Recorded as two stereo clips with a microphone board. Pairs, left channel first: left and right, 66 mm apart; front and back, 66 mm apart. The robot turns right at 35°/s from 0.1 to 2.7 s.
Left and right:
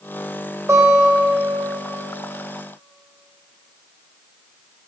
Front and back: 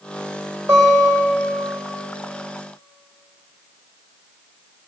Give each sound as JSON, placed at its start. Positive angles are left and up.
{"t": 0.7, "sound": "a guitar", "azimuth_deg": -140, "distance_m": 3.5}